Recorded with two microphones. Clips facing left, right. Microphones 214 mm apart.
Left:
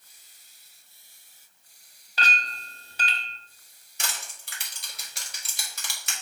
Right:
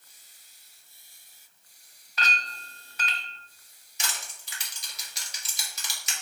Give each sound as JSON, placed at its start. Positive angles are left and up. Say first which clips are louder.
{"t": 2.2, "sound": "a clink", "louder": "left 2 dB", "side_deg": 30, "distance_m": 0.7}
{"t": 4.0, "sound": "crushing", "louder": "left 1 dB", "side_deg": 55, "distance_m": 1.7}